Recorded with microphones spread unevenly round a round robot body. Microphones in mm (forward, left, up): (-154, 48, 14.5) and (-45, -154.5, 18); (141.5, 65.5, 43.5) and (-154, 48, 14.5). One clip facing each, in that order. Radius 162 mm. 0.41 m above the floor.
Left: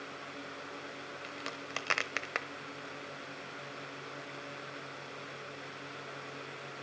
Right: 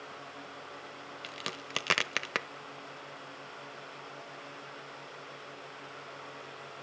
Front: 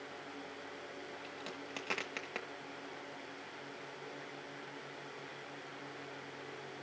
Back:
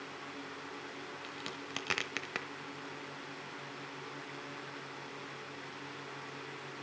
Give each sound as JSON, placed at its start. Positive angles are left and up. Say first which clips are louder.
{"t": 1.2, "sound": "a crack", "louder": "right 2 dB, back 1 dB", "azimuth_deg": -115, "distance_m": 0.9}